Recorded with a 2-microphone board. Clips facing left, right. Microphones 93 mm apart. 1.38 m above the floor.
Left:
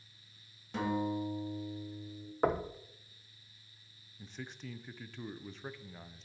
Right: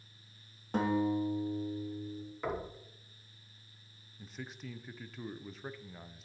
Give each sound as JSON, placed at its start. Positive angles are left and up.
{"t": 0.7, "sound": "a guitar", "side_deg": -45, "distance_m": 2.0}
{"t": 2.4, "sound": "knocking", "side_deg": 50, "distance_m": 0.7}
{"t": 4.2, "sound": "a man speaking", "side_deg": -5, "distance_m": 0.5}